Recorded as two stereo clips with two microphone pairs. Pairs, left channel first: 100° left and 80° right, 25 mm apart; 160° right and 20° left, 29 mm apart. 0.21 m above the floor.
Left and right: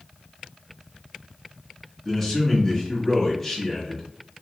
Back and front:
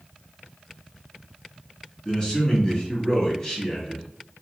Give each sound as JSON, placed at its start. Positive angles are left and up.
{"t": 2.0, "sound": "a man speaking", "azimuth_deg": 180, "distance_m": 1.3}